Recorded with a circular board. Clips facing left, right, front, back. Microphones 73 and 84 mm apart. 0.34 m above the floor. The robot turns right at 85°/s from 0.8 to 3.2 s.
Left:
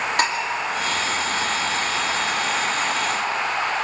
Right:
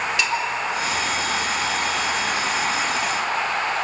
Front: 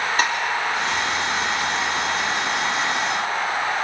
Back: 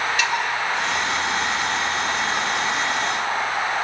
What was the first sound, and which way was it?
Dishes clattering, 50° left.